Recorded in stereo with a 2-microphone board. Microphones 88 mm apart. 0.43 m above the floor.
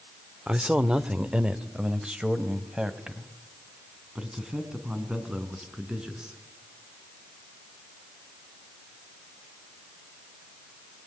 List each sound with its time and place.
0.5 s a man speaking: 10° right (ahead or behind), 0.9 m